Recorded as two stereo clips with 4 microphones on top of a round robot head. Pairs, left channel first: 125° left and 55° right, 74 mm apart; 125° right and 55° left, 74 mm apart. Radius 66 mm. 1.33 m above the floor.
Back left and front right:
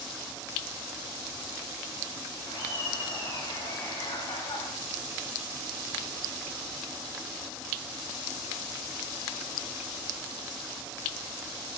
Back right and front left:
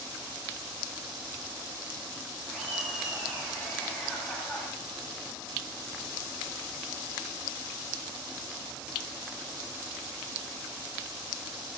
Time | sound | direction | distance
2.5 | laughter | 130° left | 9.5 m